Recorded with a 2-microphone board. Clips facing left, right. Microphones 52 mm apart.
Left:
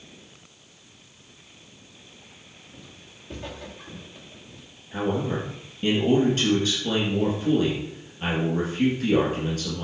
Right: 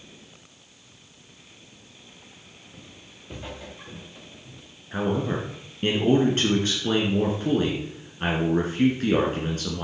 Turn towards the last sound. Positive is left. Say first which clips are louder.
# even
turn(degrees=-35)  # may be behind; listen again after turning